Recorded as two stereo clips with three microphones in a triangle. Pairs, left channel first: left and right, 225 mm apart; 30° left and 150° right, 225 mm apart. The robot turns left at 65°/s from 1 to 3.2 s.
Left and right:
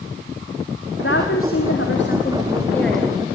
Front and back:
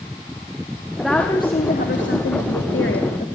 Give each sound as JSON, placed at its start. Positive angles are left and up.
{"t": 1.0, "sound": "a woman speaking", "azimuth_deg": 125, "distance_m": 2.5}